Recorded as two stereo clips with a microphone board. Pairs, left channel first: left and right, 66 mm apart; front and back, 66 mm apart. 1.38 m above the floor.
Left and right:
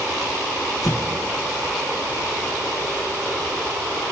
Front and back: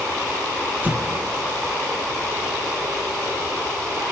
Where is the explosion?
115° left, 1.8 m.